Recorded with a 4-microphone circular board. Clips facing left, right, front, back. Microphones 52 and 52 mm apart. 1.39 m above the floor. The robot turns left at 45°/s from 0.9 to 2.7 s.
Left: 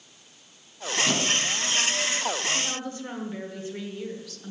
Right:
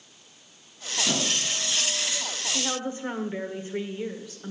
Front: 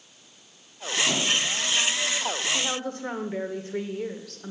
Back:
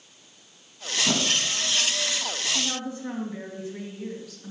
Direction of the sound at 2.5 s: 20° right.